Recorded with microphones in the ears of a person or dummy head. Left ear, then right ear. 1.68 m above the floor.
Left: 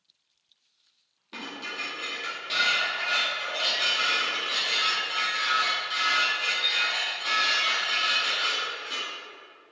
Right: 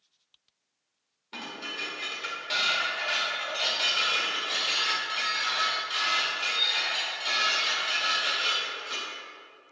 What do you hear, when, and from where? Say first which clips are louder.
1.3 s dishes clattering: left 1 dB; 5° left (ahead or behind), 2 m